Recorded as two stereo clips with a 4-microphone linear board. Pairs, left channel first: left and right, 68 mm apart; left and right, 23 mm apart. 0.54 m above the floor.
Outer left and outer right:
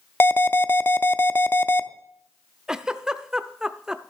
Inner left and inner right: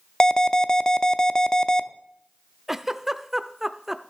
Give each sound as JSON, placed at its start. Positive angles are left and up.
{"t": 0.2, "sound": "an alarm", "side_deg": 30, "distance_m": 0.5}
{"t": 2.7, "sound": "a giggle", "side_deg": -10, "distance_m": 0.6}